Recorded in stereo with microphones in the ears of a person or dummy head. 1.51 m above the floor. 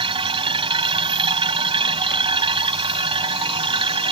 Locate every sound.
0.0 s a machine running: 25° right (ahead or behind)